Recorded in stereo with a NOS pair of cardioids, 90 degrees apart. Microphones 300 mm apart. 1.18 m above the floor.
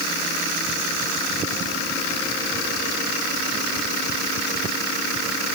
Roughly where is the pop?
No pop in this recording.